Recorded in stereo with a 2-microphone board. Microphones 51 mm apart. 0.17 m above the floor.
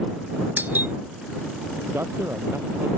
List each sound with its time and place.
0.6 s a doorbell: 45° right (ahead or behind)
1.9 s a man speaking: 65° right (ahead or behind)